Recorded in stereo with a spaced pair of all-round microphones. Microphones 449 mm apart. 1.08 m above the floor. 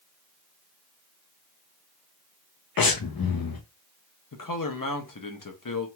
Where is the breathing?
50° left (ahead or behind), 0.5 m.